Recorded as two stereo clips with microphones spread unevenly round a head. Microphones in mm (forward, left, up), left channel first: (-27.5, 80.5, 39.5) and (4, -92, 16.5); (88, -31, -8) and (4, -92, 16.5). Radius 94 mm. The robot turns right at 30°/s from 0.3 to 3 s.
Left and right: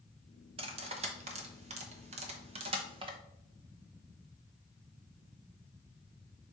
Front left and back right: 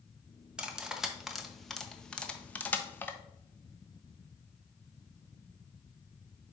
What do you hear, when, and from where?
0.6 s cutlery clinking: 110° right, 0.8 m; by 3.2 s 40° right, 0.8 m